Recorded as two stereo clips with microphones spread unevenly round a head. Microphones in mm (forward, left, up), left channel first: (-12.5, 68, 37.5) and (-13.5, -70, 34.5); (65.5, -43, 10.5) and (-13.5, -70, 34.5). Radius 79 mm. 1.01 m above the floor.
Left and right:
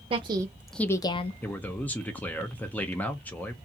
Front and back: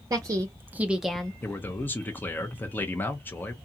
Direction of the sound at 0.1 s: 110° right.